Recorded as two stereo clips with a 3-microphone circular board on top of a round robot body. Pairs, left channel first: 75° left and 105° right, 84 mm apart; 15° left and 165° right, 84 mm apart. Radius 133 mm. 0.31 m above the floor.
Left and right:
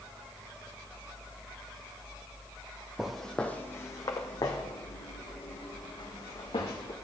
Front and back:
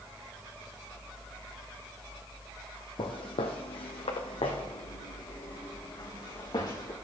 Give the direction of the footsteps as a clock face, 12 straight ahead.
1 o'clock.